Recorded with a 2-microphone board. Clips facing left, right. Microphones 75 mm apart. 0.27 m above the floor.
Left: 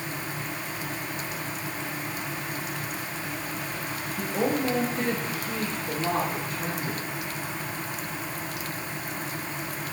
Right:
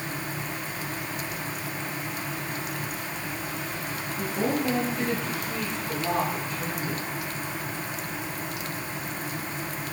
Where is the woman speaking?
55° left (ahead or behind), 5 m; by 7.0 s 40° left (ahead or behind), 4 m.